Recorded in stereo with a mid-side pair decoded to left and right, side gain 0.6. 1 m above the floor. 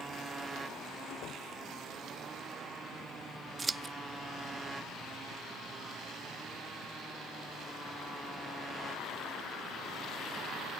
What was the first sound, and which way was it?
A motorcycle, 25° right.